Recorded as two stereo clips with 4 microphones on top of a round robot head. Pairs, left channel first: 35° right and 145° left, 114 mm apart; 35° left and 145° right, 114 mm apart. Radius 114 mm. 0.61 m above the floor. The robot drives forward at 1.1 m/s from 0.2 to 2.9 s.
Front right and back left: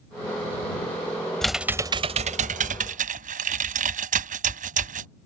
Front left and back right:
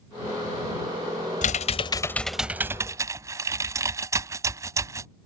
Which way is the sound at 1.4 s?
50° left.